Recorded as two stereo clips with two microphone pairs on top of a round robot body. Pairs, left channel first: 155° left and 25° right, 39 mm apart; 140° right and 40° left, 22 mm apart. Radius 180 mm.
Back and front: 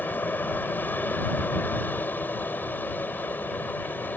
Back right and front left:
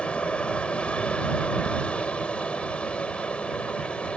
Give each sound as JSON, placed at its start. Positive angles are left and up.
{"t": 0.0, "sound": "an aircraft", "azimuth_deg": -165}